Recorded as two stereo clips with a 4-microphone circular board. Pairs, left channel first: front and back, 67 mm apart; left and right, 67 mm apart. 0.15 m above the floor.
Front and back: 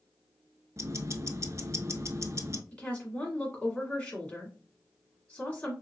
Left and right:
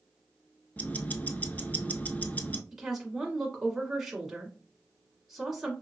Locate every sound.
0.8 s ticking: 150° left, 0.5 m
2.7 s a woman speaking: 15° right, 1.4 m